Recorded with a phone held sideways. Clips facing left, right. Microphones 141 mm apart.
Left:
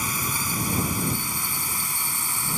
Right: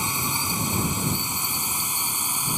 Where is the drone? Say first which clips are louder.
Right 1 dB; 20° right (ahead or behind).